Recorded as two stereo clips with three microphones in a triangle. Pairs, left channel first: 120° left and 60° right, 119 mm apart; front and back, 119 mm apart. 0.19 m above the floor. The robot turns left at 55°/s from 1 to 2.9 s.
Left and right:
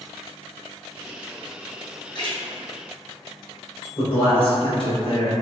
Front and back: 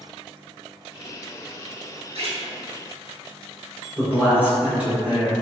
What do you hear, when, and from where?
2.1 s a splash: 165° left, 1.2 m; by 2.4 s 150° left, 1.2 m
4.0 s a man speaking: 105° left, 1.7 m